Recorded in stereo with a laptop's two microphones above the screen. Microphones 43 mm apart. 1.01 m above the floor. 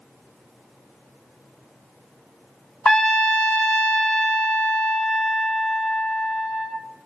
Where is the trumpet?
15° left (ahead or behind), 0.5 m.